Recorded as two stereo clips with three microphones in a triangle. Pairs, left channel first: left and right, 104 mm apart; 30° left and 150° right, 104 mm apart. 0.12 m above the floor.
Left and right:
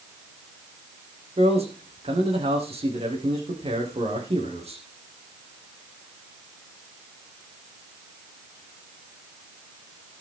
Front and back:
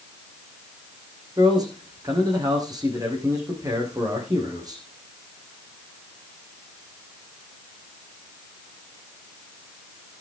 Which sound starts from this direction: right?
A man speaking, at 1.4 s.